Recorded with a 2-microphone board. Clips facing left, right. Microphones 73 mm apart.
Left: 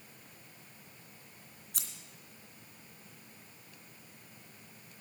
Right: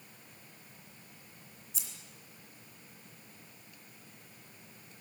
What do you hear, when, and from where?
1.7 s scissors: 70° left (ahead or behind), 2.5 m